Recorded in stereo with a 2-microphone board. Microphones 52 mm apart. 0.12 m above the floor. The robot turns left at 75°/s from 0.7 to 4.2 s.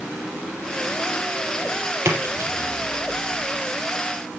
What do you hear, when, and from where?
2.0 s a splash: 50° right (ahead or behind), 3 m; by 2.7 s 60° right (ahead or behind), 3 m